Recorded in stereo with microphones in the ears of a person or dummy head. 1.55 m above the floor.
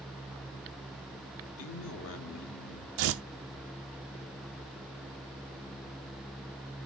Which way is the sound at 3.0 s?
65° right (ahead or behind).